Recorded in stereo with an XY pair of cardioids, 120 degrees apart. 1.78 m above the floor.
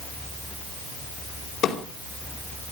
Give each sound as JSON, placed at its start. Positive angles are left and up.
{"t": 1.6, "sound": "a drawer", "azimuth_deg": 60, "distance_m": 5.0}